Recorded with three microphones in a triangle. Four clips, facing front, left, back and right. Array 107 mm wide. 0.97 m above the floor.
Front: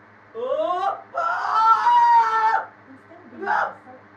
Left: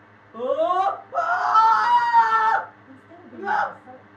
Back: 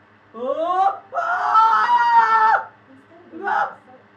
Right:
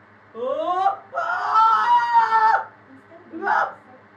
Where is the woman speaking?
40° left, 1.2 m.